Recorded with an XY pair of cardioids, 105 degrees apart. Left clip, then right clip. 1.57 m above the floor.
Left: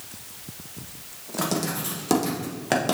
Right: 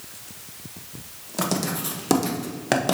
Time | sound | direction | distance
1.4 | writing | 15° right | 1.2 m